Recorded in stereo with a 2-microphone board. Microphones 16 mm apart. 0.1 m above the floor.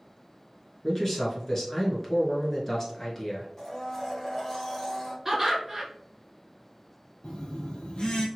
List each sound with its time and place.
0.8 s a man speaking: 30° left (ahead or behind), 1.1 m
3.6 s a blender: 30° left (ahead or behind), 2.0 m
5.2 s laughter: 15° right (ahead or behind), 1.6 m
7.2 s a phone buzzing: 70° left (ahead or behind), 0.8 m